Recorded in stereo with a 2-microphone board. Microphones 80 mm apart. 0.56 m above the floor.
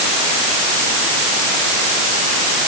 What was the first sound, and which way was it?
Only background noise.